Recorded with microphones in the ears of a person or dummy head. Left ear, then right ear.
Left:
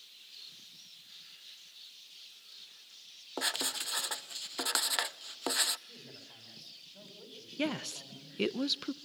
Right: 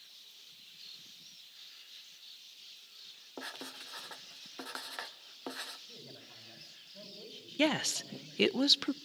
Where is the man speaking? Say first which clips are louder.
Even; centre (ahead or behind), 6.5 m.